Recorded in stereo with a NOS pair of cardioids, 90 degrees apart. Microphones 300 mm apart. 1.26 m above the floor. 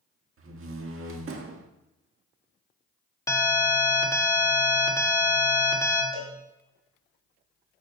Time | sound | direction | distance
0.4 | a door slam | 50° right | 1.6 m
3.3 | an alarm | 10° left | 2 m
6.1 | a cowbell | 25° right | 3.5 m